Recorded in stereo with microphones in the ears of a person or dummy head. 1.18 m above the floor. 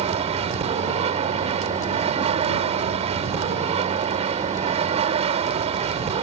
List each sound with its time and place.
0.0 s an aircraft: 30° right (ahead or behind)